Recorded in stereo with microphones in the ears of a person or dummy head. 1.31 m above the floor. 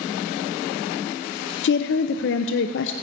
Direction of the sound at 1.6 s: 60° left (ahead or behind).